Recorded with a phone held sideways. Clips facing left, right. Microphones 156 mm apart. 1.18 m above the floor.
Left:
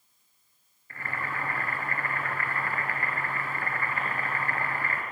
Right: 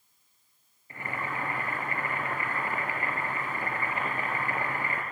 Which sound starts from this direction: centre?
Boiling, at 0.9 s.